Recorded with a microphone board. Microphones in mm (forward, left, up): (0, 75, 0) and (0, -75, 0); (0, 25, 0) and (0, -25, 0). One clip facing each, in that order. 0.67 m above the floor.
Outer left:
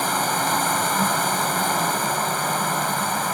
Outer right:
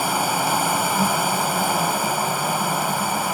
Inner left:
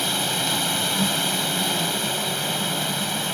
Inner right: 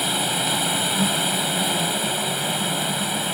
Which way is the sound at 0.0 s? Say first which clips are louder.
Outer right 1 dB, inner right 1 dB; 10° right (ahead or behind).